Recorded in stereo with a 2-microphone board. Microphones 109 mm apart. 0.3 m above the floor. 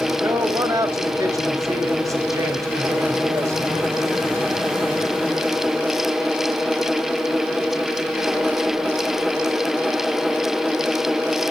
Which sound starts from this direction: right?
A man speaking, at 0.2 s.